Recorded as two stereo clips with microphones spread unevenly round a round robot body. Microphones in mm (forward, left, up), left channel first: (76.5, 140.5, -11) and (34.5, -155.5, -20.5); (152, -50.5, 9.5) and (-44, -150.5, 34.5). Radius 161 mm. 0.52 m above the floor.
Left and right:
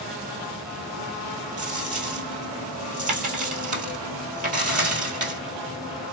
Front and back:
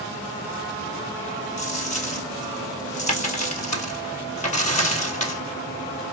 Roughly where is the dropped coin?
Ahead right.